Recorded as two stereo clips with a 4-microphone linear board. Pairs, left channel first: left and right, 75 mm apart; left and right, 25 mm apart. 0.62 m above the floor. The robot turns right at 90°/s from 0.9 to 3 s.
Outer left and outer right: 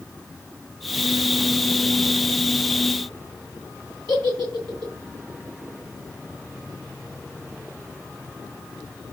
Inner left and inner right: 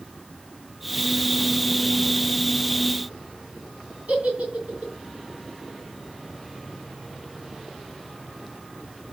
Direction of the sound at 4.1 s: 85° right.